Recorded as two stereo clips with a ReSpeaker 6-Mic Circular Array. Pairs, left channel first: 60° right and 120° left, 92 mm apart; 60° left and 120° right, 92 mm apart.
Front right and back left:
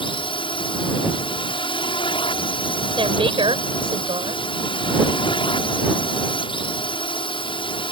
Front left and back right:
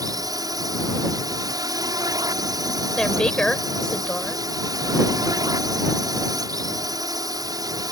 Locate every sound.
0.0 s a drone: 75° right
3.0 s a woman speaking: 140° left